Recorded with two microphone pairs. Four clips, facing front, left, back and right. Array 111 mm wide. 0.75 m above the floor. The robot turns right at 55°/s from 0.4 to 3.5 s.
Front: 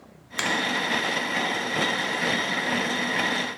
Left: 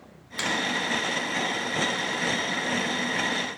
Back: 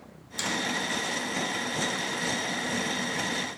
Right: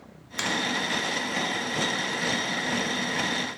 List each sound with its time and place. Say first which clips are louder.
0.4 s a finger snap: even, front 5 dB; 15° right, 0.9 m; by 0.5 s 10° right, 0.9 m